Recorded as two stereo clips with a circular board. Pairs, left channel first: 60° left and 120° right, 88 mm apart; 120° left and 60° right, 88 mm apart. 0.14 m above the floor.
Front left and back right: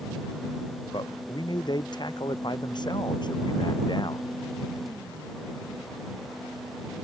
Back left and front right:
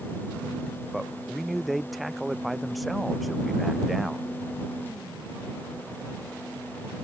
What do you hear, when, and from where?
0.9 s a man speaking: 30° left